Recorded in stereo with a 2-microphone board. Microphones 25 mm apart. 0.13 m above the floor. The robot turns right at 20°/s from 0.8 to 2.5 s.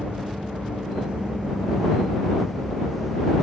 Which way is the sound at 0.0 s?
45° right.